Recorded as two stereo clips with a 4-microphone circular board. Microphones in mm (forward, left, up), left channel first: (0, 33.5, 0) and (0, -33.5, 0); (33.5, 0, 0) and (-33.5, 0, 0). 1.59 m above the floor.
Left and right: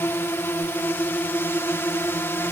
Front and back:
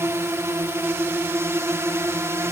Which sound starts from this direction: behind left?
A drone, at 0.0 s.